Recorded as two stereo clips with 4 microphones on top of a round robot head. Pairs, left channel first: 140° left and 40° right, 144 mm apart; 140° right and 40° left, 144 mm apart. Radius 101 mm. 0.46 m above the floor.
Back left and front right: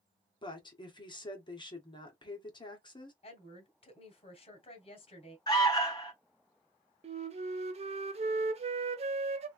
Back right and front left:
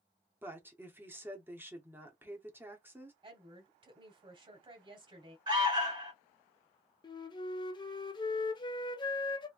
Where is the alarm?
85° left, 2.5 m.